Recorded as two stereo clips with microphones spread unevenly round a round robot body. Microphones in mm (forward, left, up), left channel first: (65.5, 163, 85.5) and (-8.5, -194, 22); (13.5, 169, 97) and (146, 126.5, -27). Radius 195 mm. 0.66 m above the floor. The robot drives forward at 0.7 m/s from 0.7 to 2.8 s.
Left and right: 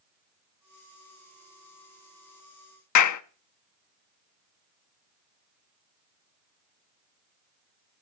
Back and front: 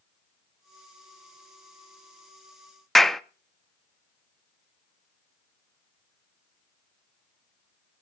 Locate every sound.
3.0 s a clap: 35° left, 0.9 m